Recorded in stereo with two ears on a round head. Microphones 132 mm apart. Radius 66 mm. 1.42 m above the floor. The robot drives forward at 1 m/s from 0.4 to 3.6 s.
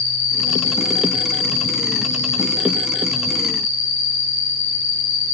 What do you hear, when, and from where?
0.0 s an insect: 20° left (ahead or behind), 6.5 m; by 5.3 s 15° left (ahead or behind), 9.5 m